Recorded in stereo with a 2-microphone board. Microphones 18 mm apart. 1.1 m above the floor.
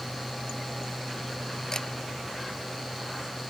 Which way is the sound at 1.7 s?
30° left (ahead or behind).